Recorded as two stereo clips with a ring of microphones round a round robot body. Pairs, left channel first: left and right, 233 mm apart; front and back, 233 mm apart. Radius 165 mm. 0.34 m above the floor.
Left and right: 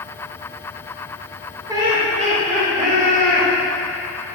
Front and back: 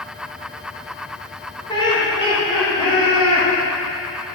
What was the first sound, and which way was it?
Laughter, 35° right.